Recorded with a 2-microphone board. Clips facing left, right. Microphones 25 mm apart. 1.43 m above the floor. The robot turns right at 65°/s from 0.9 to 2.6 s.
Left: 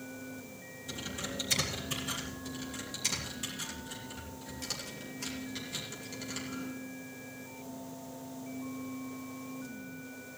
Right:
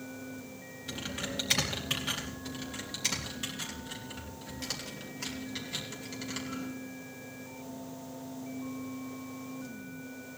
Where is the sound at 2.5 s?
30° right (ahead or behind), 3 m; by 6.7 s 20° right (ahead or behind), 3 m.